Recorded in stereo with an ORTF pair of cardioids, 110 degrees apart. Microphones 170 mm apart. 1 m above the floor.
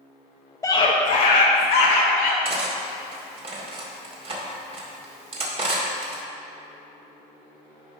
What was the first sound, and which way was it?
A scream, 15° left.